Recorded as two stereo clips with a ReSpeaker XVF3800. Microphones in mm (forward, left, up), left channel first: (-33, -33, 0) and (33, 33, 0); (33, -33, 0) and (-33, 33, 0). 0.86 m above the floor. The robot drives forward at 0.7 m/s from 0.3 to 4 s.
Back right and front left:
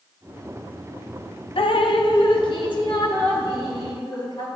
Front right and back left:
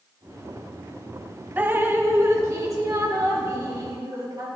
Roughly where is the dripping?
Behind right.